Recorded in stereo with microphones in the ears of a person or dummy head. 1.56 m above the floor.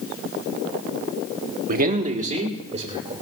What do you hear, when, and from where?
1.7 s a man speaking: 55° right (ahead or behind), 1.0 m; by 3.1 s 35° right (ahead or behind), 3 m